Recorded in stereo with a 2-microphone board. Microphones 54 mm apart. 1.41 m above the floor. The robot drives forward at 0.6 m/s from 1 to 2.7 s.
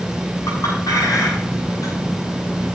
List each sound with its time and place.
0.5 s a clink: 85° left, 7 m